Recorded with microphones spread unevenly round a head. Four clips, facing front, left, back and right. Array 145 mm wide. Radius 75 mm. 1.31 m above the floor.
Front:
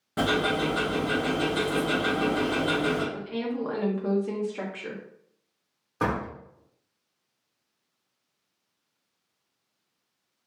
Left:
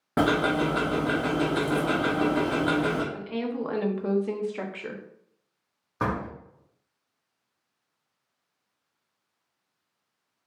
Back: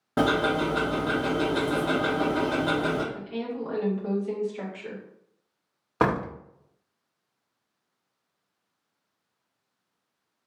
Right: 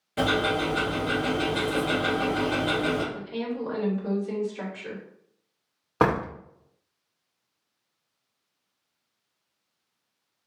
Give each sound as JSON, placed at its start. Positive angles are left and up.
{"t": 0.2, "sound": "ticking", "azimuth_deg": 120, "distance_m": 0.7}
{"t": 3.1, "sound": "a woman speaking", "azimuth_deg": 60, "distance_m": 0.8}
{"t": 6.0, "sound": "a door slam", "azimuth_deg": -115, "distance_m": 0.6}